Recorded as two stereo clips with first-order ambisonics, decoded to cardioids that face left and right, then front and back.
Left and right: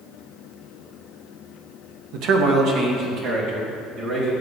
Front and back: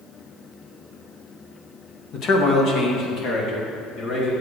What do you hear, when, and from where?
2.1 s a man speaking: 55° right, 1.3 m; by 4.3 s 45° right, 4 m